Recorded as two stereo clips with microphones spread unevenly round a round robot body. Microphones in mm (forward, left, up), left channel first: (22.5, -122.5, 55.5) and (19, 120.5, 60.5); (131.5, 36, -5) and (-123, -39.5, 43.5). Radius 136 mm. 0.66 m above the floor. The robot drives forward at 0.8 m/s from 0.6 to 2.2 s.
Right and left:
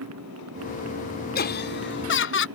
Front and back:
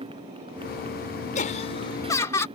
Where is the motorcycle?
125° left.